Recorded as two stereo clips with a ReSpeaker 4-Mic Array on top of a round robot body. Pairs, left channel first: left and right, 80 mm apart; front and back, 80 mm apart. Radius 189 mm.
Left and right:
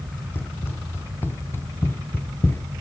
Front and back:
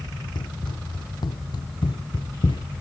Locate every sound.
0.3 s running footsteps: 25° left